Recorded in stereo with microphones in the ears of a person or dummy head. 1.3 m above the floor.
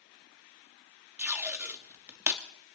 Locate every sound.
1.2 s tape being pulled: 15° right (ahead or behind), 0.7 m